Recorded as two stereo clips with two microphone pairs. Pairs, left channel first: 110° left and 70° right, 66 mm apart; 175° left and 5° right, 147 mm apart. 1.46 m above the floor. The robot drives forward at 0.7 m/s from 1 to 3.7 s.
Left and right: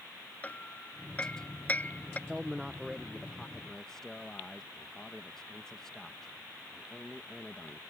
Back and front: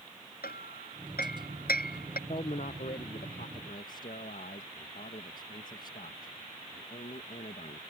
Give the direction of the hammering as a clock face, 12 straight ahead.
6 o'clock.